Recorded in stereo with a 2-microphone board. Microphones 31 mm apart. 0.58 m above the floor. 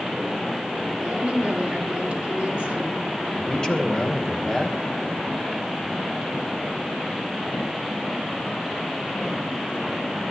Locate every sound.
1.0 s a woman speaking: 35° right (ahead or behind), 5.5 m
3.4 s a man speaking: 30° left (ahead or behind), 2 m